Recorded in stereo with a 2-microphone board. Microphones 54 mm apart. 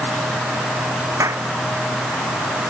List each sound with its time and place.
1.2 s a clap: 65° right (ahead or behind)